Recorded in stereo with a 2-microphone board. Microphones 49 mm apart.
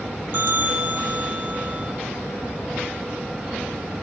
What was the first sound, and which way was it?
A bell, 45° right (ahead or behind).